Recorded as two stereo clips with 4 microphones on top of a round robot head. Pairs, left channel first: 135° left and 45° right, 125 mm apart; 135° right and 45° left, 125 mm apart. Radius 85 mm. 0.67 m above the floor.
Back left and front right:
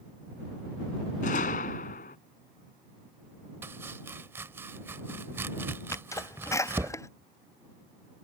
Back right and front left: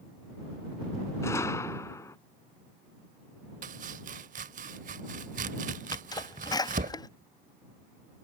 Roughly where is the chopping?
Ahead left.